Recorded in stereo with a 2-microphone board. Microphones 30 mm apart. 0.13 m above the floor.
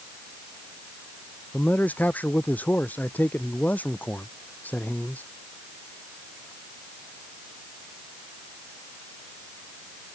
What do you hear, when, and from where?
1.5 s a man speaking: 75° left (ahead or behind)